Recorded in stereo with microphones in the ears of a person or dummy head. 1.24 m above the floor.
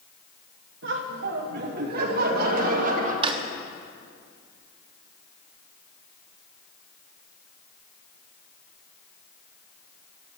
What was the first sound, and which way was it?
Laughter, 80° right.